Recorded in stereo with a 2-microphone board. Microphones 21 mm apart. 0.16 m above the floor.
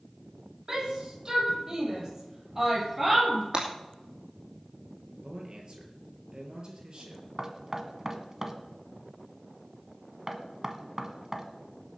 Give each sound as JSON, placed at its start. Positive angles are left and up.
{"t": 0.7, "sound": "a shout", "side_deg": -35, "distance_m": 6.5}
{"t": 3.5, "sound": "breaking glass", "side_deg": -45, "distance_m": 3.5}
{"t": 5.2, "sound": "a man speaking", "side_deg": -45, "distance_m": 4.0}
{"t": 7.4, "sound": "knocking", "side_deg": -25, "distance_m": 1.3}